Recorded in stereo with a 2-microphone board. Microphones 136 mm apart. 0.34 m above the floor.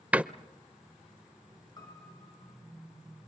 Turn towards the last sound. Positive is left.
turn(degrees=30)  # may be behind; listen again after turning